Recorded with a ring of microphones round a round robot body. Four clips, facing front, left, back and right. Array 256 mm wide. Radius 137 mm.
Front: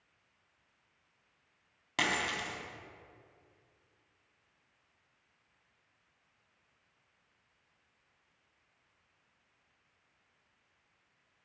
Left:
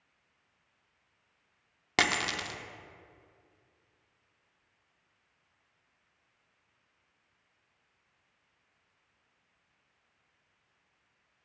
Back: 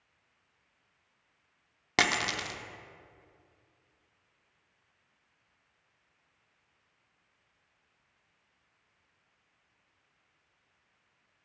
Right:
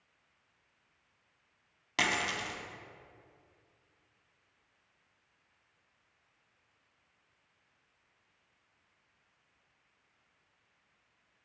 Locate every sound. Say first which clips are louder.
2.0 s a dropped coin: left 2 dB, back 4 dB; 135° left, 0.6 m